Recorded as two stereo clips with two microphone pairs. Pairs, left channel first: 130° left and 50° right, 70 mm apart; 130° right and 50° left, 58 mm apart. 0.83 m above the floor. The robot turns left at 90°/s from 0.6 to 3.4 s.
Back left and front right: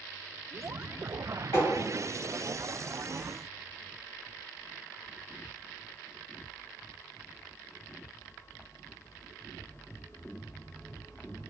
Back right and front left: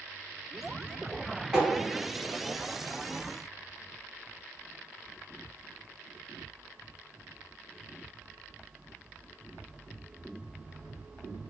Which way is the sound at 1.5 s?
135° left.